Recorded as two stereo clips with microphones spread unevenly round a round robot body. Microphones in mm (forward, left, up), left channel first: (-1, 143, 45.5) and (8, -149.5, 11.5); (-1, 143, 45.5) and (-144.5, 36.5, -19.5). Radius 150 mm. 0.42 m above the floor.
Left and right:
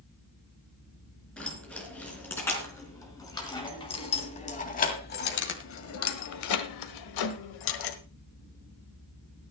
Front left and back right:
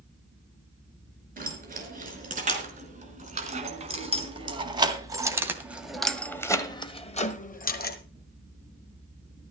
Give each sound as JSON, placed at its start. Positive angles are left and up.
{"t": 1.4, "sound": "keys jangling", "azimuth_deg": 180, "distance_m": 4.5}